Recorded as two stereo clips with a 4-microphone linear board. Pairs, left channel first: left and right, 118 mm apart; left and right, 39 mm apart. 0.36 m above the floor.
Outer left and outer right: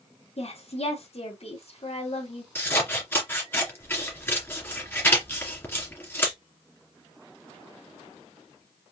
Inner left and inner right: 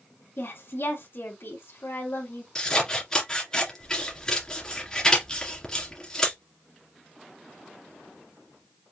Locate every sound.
0.4 s a woman speaking: 60° left (ahead or behind), 2.5 m
2.5 s scissors: 20° left (ahead or behind), 2 m